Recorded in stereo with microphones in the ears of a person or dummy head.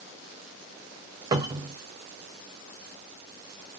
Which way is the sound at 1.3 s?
20° right (ahead or behind).